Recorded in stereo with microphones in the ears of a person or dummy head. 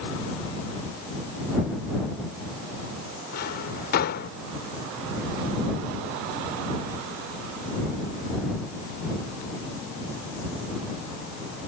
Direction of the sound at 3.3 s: 50° left (ahead or behind).